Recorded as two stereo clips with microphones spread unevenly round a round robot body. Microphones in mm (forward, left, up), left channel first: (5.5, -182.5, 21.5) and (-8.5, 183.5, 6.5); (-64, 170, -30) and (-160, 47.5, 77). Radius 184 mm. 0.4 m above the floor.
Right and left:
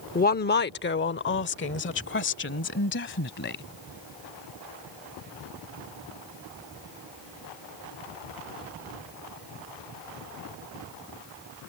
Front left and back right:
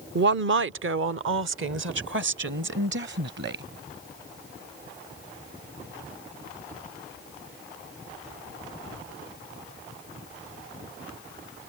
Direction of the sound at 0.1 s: 120° right.